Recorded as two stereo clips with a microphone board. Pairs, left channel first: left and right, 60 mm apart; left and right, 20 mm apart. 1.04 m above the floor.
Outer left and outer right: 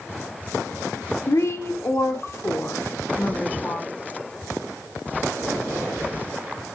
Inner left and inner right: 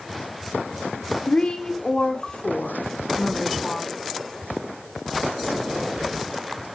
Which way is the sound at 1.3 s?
60° left (ahead or behind).